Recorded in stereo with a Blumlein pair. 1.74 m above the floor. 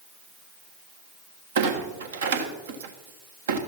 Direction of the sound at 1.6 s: 60° right.